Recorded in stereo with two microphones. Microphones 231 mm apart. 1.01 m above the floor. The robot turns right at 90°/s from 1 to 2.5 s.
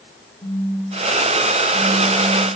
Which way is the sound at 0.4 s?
140° left.